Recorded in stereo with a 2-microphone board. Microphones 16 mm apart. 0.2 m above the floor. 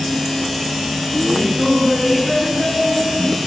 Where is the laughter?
5° left (ahead or behind), 2.0 m; by 3.4 s 25° right (ahead or behind), 3.5 m.